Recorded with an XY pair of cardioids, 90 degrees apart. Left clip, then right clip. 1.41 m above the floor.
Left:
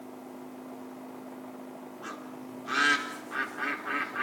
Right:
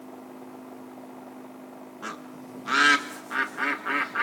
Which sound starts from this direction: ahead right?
A bird, at 2.0 s.